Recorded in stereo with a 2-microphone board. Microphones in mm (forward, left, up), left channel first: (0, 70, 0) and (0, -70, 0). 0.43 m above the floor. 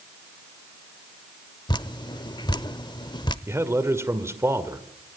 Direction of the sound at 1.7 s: 30° left (ahead or behind).